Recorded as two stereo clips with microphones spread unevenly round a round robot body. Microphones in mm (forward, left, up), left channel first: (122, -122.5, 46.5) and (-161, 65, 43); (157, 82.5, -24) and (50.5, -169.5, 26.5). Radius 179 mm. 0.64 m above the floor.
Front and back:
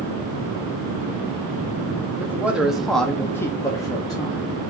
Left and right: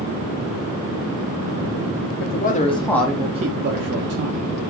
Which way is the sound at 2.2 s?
65° left.